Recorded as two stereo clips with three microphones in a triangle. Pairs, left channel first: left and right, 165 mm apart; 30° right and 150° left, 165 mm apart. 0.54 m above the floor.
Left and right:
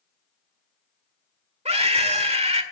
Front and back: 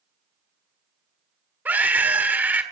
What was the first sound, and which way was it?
A scream, 130° right.